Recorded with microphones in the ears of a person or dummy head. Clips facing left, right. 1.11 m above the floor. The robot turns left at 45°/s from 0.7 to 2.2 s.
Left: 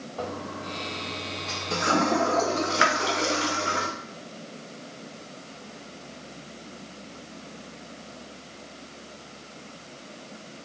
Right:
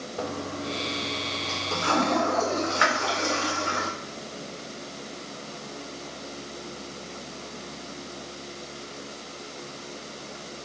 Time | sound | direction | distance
0.2 | a toilet flushing | 25° right (ahead or behind) | 0.7 m